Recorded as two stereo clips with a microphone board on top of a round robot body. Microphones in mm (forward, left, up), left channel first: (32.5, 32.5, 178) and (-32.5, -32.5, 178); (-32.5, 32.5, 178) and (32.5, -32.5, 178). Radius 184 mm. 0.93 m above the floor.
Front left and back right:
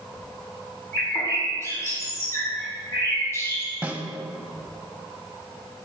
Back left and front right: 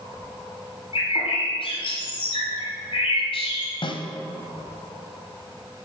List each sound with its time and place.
0.9 s a bird: 110° left, 1.5 m
3.8 s a snare drum: 150° left, 1.0 m